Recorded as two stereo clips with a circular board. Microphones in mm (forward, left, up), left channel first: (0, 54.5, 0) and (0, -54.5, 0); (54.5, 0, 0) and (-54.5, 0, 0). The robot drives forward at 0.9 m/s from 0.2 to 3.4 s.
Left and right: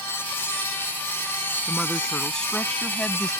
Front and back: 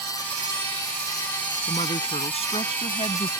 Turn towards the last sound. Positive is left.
turn(degrees=10)